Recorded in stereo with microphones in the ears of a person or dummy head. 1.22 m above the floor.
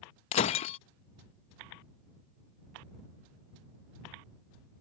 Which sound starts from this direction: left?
Breaking glass, at 0.3 s.